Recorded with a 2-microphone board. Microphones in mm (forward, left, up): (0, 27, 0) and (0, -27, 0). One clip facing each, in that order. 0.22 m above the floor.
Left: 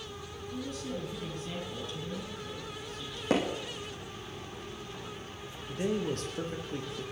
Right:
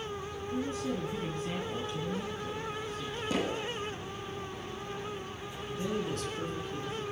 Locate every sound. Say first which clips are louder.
0.5 s a woman speaking: right 4 dB; 35° right (ahead or behind), 2.5 m
3.3 s hammering: left 4 dB; 70° left (ahead or behind), 5 m
5.7 s a man speaking: left 2 dB; 55° left (ahead or behind), 4 m